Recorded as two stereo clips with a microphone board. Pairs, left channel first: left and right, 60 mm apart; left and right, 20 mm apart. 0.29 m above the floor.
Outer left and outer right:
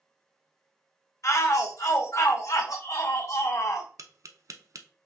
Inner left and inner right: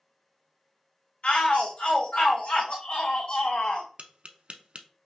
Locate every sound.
1.2 s a shout: 60° left (ahead or behind), 2.5 m
4.0 s tapping: 65° right (ahead or behind), 0.5 m